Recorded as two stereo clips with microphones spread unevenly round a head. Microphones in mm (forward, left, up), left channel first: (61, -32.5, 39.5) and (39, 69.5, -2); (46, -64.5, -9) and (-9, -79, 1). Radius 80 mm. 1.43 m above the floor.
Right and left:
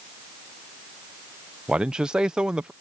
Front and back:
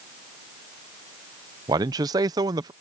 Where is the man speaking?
Straight behind.